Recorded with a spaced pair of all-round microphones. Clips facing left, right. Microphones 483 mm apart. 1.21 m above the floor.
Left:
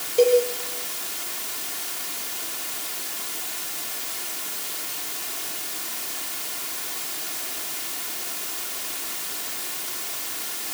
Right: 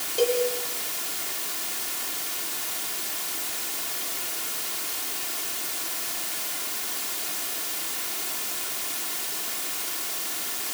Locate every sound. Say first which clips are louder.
0.2 s a cowbell: left 6 dB; 30° right (ahead or behind), 7 m